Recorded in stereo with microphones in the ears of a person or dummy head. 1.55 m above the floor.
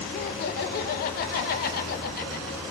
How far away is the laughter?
About 2 m.